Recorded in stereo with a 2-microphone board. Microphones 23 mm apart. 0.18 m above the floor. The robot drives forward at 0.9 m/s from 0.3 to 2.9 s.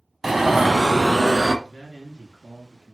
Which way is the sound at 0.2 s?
15° right (ahead or behind).